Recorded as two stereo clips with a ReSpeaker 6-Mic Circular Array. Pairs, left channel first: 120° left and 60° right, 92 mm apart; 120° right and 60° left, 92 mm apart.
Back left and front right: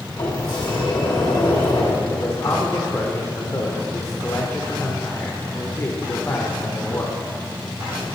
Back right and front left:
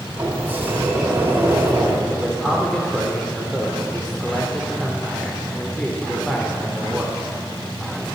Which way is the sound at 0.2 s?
120° left.